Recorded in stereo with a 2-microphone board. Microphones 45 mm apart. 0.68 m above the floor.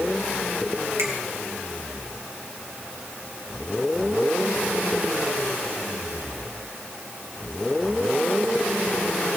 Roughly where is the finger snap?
Right.